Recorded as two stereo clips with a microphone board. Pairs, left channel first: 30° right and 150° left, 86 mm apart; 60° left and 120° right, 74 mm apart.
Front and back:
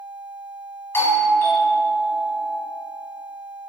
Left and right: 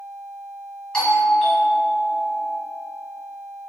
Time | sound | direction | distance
0.9 | a doorbell | 5° right | 1.5 m